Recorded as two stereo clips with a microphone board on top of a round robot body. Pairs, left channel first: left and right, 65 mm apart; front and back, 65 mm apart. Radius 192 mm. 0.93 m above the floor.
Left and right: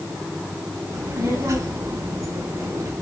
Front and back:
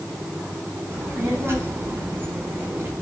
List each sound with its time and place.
0.9 s a child speaking: 130° right, 4.5 m